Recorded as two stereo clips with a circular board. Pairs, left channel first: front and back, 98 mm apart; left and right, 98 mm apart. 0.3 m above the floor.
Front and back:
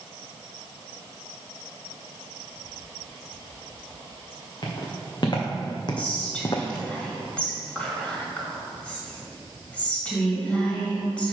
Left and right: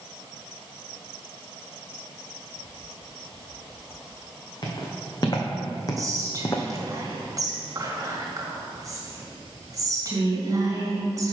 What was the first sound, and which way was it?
Footsteps, 40° left.